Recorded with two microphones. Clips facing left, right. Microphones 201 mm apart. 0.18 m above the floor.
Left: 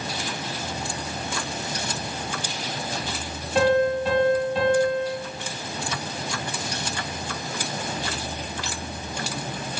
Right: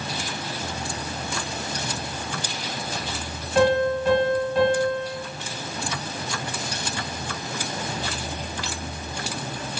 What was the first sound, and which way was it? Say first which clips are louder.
A piano: even; 20° left (ahead or behind).